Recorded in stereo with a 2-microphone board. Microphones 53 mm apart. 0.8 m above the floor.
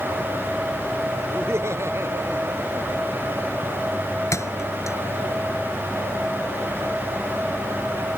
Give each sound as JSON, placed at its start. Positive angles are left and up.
{"t": 1.3, "sound": "laughter", "side_deg": -50}
{"t": 4.3, "sound": "a thud", "side_deg": 60}